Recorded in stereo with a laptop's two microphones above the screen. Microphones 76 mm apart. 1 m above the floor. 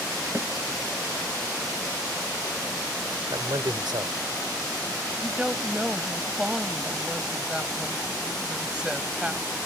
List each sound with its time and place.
0.3 s a snare drum: 40° right (ahead or behind)
3.3 s a man speaking: 85° right
5.2 s a woman speaking: 10° right (ahead or behind)